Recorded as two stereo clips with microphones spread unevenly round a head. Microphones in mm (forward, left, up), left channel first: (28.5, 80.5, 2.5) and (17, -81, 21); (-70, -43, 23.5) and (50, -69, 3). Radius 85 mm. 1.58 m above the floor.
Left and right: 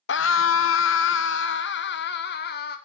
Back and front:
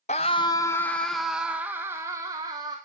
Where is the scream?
115° left, 0.7 m; by 2.8 s 55° left, 1.6 m.